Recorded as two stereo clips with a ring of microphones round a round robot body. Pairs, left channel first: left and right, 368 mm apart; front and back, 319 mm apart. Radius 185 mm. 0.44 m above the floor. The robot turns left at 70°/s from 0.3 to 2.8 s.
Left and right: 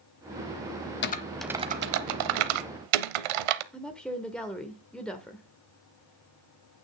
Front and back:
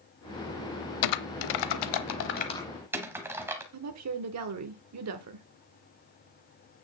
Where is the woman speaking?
175° left, 1.0 m.